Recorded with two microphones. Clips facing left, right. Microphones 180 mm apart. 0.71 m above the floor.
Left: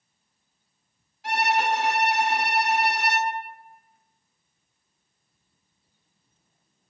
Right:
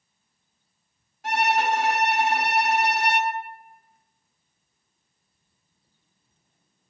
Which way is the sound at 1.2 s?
50° right (ahead or behind).